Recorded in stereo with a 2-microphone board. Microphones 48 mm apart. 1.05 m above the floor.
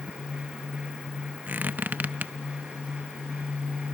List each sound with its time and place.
1.5 s a squeak: 35° right (ahead or behind), 0.5 m